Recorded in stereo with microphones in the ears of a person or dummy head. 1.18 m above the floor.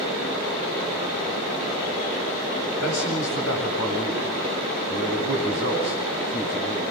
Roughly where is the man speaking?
Left.